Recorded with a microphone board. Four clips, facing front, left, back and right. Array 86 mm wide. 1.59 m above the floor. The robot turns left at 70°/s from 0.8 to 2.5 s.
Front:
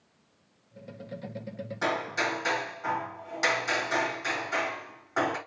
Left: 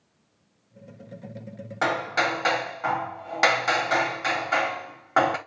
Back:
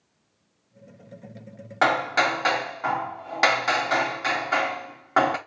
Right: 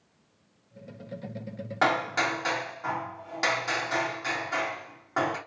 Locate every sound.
1.8 s hammering: 170° right, 0.9 m; by 5.4 s 145° left, 0.9 m